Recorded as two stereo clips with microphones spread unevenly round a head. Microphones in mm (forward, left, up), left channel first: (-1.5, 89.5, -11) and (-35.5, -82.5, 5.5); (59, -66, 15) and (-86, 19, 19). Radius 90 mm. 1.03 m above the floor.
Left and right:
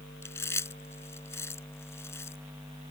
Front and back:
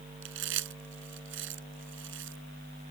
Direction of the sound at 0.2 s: 155° left.